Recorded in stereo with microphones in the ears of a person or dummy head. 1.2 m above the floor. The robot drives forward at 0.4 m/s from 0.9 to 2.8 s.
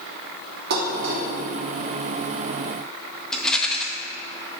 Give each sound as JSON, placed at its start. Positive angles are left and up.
{"t": 0.7, "sound": "dishes clattering", "side_deg": -60, "distance_m": 1.5}
{"t": 3.3, "sound": "a rattle", "side_deg": 5, "distance_m": 0.6}